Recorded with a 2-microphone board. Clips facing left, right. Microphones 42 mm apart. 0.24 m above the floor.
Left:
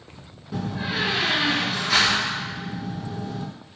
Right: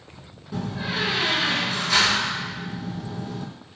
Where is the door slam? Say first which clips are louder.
Left 1 dB; 10° left (ahead or behind), 1.8 m.